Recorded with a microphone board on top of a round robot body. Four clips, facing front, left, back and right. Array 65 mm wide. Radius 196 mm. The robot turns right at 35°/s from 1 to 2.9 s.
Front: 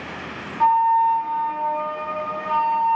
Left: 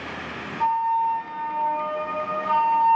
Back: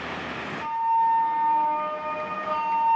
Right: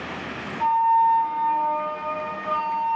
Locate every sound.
0.6 s a flute: 15° left, 0.5 m; by 3.0 s 80° left, 0.5 m